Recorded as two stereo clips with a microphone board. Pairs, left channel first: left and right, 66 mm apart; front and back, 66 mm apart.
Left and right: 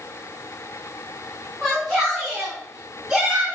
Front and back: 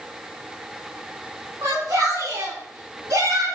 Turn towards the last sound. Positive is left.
turn(degrees=-165)